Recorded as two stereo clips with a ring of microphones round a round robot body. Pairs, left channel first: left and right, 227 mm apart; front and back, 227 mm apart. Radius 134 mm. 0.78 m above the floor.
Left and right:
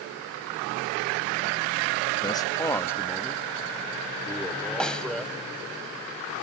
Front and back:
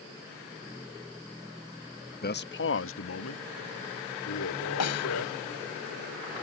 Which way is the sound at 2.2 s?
25° left.